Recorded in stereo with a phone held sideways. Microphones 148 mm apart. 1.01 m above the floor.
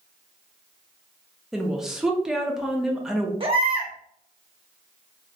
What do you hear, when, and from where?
1.5 s a woman speaking: 5° right (ahead or behind), 0.6 m
3.4 s a baby crying: 40° right (ahead or behind), 0.7 m